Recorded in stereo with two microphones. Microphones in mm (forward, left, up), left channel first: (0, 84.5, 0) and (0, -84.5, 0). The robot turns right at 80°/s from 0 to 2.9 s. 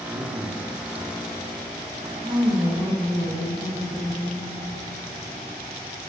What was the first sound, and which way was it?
A man speaking, 45° right.